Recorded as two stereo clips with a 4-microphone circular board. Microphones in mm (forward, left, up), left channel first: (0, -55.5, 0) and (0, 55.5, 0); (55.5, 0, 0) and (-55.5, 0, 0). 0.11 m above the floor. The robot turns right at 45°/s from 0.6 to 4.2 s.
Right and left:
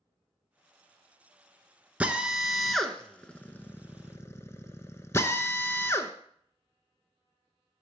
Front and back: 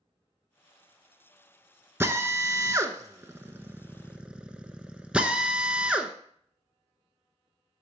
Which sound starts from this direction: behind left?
A drill, at 2.0 s.